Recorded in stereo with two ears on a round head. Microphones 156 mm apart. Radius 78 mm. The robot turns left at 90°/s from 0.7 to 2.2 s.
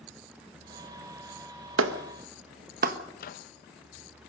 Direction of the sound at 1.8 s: 90° right.